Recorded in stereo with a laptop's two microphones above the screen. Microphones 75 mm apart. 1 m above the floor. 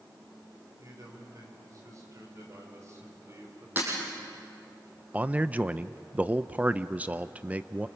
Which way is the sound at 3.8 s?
25° right (ahead or behind).